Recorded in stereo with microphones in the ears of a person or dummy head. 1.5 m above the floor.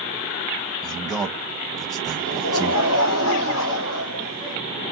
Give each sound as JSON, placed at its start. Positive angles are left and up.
{"t": 0.8, "sound": "a man speaking", "side_deg": 5, "distance_m": 0.8}
{"t": 2.1, "sound": "laughter", "side_deg": 75, "distance_m": 1.0}